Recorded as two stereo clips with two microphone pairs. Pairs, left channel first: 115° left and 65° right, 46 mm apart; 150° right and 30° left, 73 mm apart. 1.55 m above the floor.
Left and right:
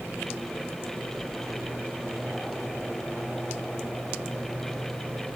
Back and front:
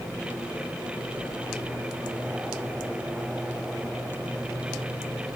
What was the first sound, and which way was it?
Only background noise.